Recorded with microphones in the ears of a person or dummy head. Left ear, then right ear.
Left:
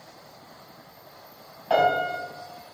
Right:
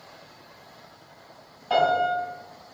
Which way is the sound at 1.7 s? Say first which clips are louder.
Even; 10° left (ahead or behind).